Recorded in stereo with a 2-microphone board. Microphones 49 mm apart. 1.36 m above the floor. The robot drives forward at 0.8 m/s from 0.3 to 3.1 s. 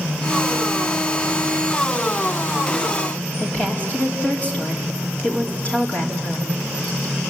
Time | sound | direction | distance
3.4 | a woman speaking | 25° left (ahead or behind) | 4 m